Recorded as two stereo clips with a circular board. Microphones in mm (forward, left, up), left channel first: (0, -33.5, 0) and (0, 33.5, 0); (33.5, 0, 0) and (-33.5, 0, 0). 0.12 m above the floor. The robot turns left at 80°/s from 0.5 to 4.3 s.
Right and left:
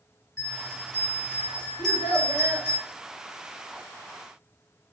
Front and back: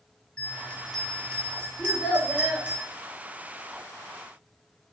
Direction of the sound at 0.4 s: 40° right.